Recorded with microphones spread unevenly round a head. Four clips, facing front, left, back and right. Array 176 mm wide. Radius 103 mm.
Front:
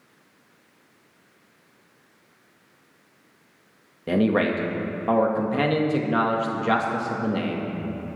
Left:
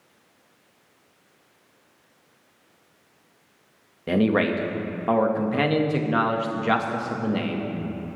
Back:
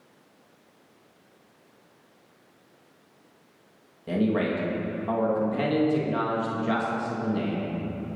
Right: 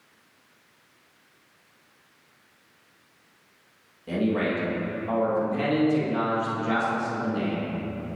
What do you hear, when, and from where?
4.1 s a man speaking: 40° left, 1.7 m